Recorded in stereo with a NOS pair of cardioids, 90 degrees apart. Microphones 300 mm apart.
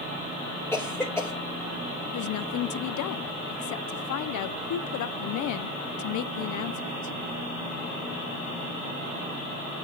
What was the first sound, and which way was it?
A cough, 5° left.